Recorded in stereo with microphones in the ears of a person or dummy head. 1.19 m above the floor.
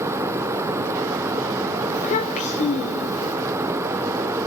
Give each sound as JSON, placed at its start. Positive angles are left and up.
{"t": 1.9, "sound": "a child speaking", "side_deg": 35, "distance_m": 2.5}